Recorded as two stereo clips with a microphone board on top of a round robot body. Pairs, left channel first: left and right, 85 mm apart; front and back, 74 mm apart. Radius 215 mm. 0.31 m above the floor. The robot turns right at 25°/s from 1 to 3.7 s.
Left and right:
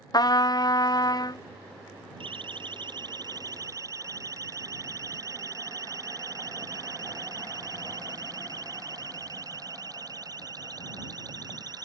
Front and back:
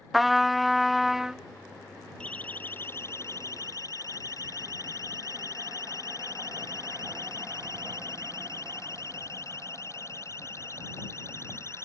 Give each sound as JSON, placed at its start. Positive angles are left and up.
{"t": 0.1, "sound": "a trumpet", "azimuth_deg": 90}
{"t": 2.2, "sound": "a siren", "azimuth_deg": -75}